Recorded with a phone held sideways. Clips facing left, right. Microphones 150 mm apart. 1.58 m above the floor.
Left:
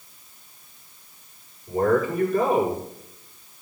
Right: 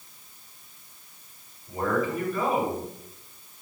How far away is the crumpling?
I don't hear crumpling.